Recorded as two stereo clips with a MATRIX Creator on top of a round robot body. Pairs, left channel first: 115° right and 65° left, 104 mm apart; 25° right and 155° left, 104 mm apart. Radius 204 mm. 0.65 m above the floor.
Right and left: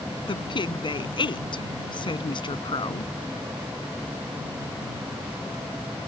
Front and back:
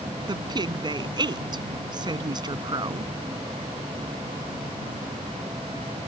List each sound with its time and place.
0.3 s a woman speaking: 155° right